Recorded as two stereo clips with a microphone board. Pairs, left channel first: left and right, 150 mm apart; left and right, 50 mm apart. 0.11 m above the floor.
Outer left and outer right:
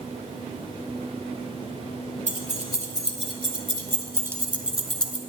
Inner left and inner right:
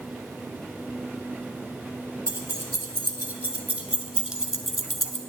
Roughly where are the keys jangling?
Right.